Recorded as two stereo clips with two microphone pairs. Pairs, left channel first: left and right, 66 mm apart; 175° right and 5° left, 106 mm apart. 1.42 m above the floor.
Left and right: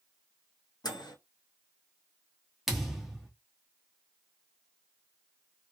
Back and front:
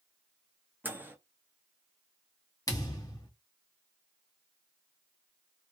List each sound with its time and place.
0.8 s a microwave: 80° left, 0.7 m
2.7 s a thud: 175° right, 1.0 m